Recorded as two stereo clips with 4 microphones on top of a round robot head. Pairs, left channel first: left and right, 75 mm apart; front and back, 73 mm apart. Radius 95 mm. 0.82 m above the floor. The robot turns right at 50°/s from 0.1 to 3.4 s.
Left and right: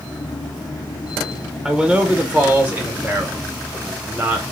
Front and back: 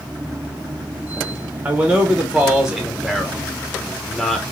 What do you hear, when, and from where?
1.6 s a man speaking: 165° right, 0.9 m; by 4.4 s 75° right, 0.9 m